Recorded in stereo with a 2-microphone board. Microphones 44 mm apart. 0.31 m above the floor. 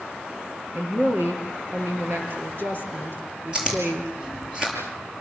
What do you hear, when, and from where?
0.7 s a woman speaking: 55° right (ahead or behind), 8 m
3.5 s chewing: 20° right (ahead or behind), 8 m